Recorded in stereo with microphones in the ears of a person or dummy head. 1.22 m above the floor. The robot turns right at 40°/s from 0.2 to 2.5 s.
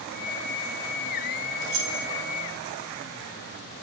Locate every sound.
1.6 s keys jangling: 65° right (ahead or behind), 5.5 m; by 2.1 s 85° right, 5.5 m